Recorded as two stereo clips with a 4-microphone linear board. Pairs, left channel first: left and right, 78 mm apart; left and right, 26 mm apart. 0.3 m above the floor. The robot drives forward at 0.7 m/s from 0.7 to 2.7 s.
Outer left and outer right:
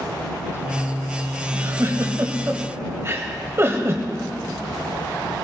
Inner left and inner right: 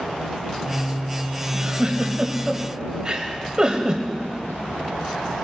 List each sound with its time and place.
1.5 s a giggle: 35° right (ahead or behind), 1.3 m